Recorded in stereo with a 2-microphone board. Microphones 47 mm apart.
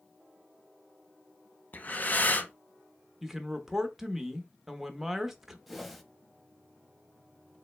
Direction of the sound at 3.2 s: 10° right (ahead or behind).